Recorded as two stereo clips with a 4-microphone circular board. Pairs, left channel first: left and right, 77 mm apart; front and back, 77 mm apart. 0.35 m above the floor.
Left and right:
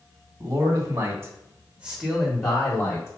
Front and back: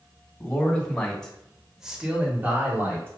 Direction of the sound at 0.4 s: 65° right.